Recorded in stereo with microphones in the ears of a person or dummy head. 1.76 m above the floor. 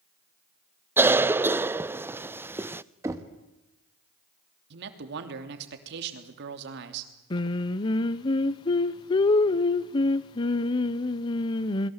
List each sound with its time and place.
1.0 s a cough: 15° right (ahead or behind), 0.6 m
3.0 s knocking: 15° right (ahead or behind), 1.6 m
4.7 s a man speaking: 60° right (ahead or behind), 3 m
7.3 s singing: 20° left (ahead or behind), 0.7 m